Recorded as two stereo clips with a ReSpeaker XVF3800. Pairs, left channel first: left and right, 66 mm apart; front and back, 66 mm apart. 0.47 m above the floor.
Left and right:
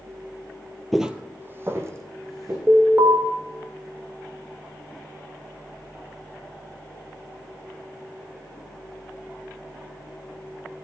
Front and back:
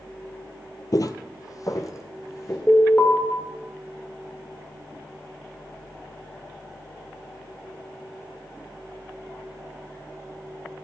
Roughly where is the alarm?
Ahead right.